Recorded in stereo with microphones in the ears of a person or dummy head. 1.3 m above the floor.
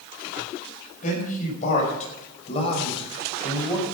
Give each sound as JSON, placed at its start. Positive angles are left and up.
{"t": 1.0, "sound": "a man speaking", "side_deg": 50, "distance_m": 6.5}